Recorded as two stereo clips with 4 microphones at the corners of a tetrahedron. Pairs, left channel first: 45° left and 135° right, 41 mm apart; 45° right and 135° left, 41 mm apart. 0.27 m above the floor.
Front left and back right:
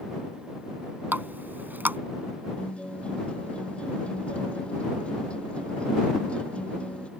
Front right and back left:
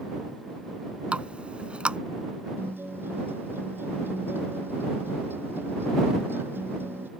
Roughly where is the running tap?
Behind.